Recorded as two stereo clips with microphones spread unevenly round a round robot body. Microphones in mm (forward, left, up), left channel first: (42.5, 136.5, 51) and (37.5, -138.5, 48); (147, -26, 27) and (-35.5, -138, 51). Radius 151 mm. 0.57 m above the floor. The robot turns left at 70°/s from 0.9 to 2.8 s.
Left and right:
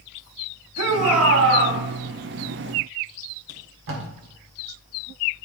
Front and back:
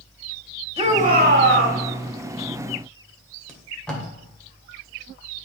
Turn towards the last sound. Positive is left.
turn(degrees=-50)